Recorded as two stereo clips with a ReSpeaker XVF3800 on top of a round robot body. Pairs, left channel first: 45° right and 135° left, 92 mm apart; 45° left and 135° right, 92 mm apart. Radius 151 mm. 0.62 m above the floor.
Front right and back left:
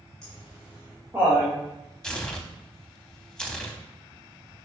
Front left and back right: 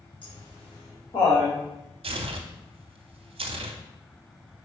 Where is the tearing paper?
125° right, 0.8 m.